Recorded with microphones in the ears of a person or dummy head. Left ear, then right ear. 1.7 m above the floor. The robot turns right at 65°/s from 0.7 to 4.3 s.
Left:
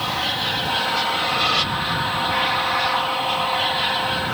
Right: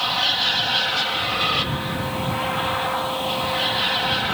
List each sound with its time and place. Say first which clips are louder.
0.0 s an aircraft: right 2 dB; 40° right; by 4.3 s 165° right